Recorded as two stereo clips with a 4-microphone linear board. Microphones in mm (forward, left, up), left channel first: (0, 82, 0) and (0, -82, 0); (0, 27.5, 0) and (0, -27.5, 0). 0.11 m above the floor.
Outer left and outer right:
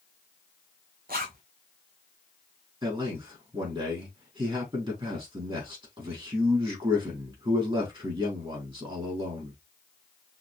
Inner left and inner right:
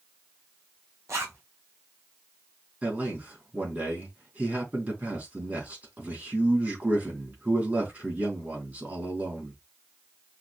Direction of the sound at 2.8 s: 35° right (ahead or behind).